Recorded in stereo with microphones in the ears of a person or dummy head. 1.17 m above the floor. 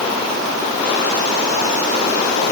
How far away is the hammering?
I don't hear hammering.